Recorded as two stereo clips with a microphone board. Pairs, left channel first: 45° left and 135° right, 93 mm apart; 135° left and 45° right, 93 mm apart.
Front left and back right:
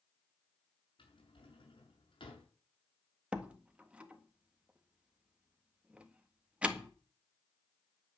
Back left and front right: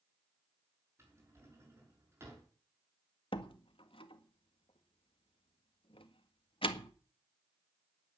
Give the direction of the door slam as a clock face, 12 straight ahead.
7 o'clock.